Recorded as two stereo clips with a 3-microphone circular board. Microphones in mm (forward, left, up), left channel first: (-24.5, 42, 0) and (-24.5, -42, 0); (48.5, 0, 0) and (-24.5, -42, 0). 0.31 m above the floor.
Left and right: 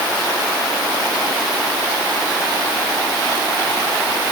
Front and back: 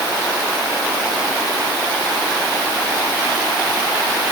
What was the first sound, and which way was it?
Only background noise.